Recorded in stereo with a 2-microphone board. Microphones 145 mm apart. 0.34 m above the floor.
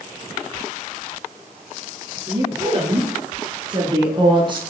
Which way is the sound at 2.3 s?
30° right (ahead or behind).